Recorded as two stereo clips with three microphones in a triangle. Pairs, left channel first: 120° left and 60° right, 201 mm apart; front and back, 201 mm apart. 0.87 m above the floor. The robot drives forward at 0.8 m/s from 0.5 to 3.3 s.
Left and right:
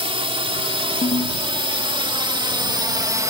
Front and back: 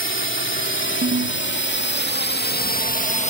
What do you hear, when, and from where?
0.0 s a drone: straight ahead
1.0 s a ringtone: 170° left; by 1.4 s 175° left